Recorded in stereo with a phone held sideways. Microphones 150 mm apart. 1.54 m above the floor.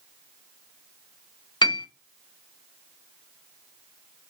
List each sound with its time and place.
1.6 s a piano: 30° left (ahead or behind), 0.5 m